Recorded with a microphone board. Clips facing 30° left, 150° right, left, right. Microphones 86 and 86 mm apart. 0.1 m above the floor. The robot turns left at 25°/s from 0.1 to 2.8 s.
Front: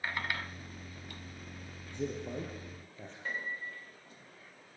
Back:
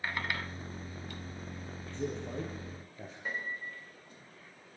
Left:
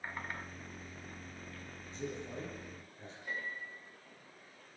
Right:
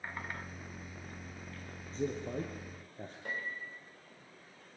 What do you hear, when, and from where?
1.9 s a man speaking: 45° right, 3.5 m; by 3.1 s 65° right, 3.5 m
3.2 s a piano: 70° right, 9.5 m